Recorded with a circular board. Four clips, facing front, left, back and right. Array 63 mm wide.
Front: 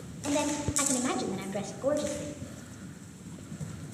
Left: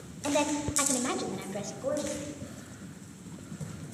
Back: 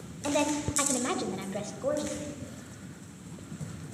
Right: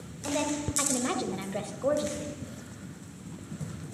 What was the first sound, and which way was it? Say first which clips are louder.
A woman speaking: left 2 dB, back 1 dB; 130° left.